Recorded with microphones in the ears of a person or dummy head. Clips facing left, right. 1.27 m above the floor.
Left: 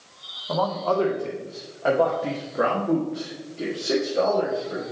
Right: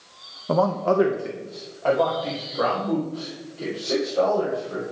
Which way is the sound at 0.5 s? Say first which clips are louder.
Right 3 dB; 55° right (ahead or behind).